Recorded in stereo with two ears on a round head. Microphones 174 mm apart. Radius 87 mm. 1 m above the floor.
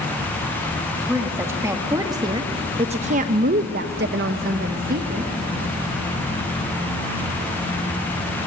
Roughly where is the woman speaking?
Centre.